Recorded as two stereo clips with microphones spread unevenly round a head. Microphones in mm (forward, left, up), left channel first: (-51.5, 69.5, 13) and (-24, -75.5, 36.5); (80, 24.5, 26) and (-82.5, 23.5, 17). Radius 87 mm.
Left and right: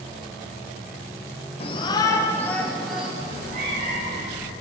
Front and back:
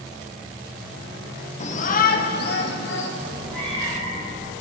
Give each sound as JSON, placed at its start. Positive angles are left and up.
{"t": 1.6, "sound": "a shout", "azimuth_deg": 50, "distance_m": 1.2}
{"t": 3.2, "sound": "a cat meowing", "azimuth_deg": -80, "distance_m": 3.5}